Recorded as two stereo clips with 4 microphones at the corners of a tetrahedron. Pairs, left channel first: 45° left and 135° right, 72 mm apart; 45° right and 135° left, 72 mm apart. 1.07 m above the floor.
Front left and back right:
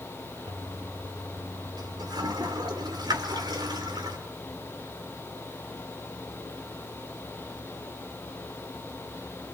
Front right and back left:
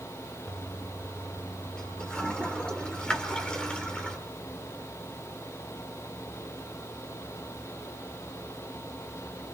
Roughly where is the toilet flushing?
Behind right.